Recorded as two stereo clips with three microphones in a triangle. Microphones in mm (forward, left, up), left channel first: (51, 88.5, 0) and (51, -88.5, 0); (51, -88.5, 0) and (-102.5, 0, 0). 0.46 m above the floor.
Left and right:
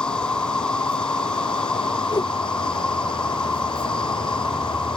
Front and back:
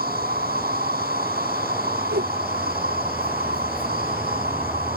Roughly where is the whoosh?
Behind.